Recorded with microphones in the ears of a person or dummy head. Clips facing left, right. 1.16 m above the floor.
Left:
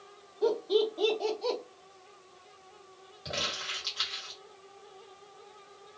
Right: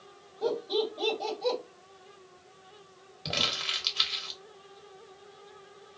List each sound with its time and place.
0.4 s laughter: 5° left (ahead or behind), 1.6 m
3.2 s crumpling: 35° right (ahead or behind), 1.0 m